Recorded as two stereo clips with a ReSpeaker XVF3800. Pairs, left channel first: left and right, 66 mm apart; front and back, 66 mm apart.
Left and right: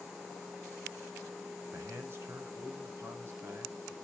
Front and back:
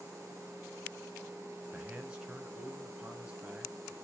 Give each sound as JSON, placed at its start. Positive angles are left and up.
{"t": 1.7, "sound": "a man speaking", "azimuth_deg": -115, "distance_m": 2.0}